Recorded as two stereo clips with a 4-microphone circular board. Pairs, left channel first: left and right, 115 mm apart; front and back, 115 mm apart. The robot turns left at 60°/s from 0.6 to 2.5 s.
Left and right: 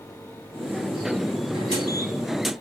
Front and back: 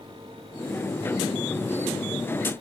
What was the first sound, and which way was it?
Only background noise.